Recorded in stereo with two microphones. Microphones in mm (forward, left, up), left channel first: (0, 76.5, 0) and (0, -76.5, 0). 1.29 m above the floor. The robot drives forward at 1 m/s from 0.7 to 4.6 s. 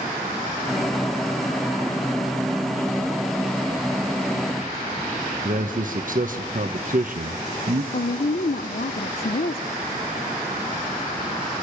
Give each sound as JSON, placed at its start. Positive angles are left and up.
{"t": 5.5, "sound": "a man speaking", "side_deg": -60, "distance_m": 1.3}
{"t": 7.9, "sound": "a woman speaking", "side_deg": 80, "distance_m": 0.6}